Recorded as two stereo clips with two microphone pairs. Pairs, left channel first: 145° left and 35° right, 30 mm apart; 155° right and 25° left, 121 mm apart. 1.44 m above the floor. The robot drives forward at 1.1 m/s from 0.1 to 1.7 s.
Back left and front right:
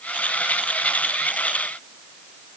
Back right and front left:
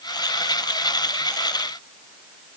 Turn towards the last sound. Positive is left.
No sound to turn to.